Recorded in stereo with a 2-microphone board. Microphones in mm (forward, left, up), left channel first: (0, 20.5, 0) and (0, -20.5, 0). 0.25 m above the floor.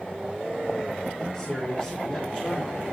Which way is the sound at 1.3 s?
35° left (ahead or behind).